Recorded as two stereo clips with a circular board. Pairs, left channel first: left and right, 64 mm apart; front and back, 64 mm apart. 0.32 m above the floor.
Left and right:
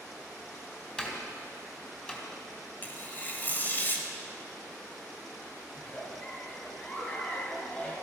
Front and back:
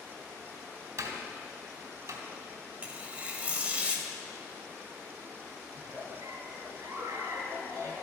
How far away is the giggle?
About 3.5 m.